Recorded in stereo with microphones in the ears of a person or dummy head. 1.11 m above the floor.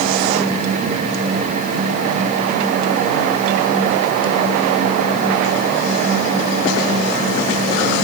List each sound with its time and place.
Only background noise.